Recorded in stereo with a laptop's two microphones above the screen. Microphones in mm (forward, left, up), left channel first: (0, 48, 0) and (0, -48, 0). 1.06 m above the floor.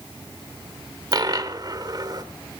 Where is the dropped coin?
45° right (ahead or behind), 1.3 m.